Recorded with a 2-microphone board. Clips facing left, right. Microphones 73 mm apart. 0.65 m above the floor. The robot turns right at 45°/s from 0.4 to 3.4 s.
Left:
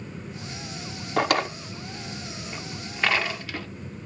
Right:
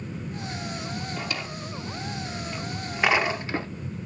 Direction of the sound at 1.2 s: 65° left (ahead or behind).